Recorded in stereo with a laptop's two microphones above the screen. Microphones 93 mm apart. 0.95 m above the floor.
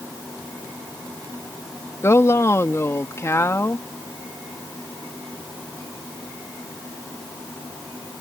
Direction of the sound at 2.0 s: 30° left (ahead or behind).